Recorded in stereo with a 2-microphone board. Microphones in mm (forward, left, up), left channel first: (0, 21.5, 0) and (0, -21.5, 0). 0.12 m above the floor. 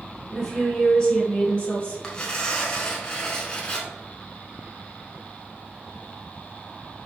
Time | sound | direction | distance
0.3 | a woman speaking | 15° left (ahead or behind) | 1.1 m
2.0 | tearing paper | 20° left (ahead or behind) | 0.8 m